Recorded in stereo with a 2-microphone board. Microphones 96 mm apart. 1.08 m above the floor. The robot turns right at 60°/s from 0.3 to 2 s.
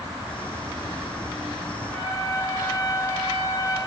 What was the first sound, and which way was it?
A trumpet, 40° left (ahead or behind).